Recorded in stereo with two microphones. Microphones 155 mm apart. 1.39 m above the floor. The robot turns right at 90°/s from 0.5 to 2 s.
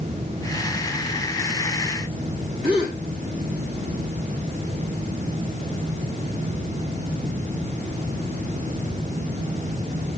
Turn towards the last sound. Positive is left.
turn(degrees=-65)  # may be behind; listen again after turning